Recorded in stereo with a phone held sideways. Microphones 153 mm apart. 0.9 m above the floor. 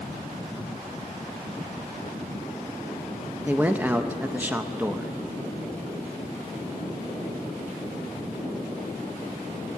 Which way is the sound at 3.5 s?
10° right (ahead or behind).